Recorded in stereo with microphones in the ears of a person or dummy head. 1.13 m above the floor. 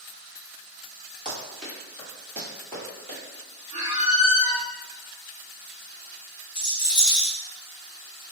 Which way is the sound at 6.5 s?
5° right (ahead or behind).